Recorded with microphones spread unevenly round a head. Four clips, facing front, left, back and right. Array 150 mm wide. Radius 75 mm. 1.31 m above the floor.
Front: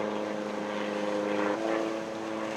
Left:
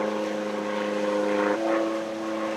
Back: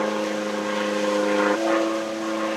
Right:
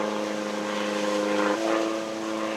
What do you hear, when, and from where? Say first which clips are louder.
0.0 s an aircraft: left 1 dB, back 7 dB; 155° left; by 2.6 s 160° left